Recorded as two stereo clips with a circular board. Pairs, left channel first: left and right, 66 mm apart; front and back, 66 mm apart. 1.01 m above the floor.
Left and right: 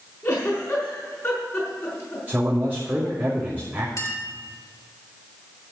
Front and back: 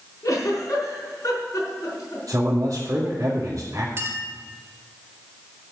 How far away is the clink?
About 2.5 m.